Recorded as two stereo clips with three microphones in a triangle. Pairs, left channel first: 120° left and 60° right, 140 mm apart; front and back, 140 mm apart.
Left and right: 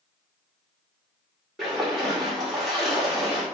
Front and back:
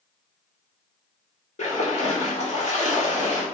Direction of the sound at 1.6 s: 30° left.